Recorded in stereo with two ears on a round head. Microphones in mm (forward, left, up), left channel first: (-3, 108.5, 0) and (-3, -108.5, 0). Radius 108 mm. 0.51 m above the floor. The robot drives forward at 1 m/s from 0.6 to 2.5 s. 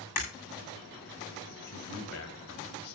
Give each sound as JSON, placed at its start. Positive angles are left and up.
{"t": 0.2, "sound": "breaking glass", "side_deg": 90, "distance_m": 8.5}
{"t": 1.7, "sound": "a man speaking", "side_deg": 70, "distance_m": 2.5}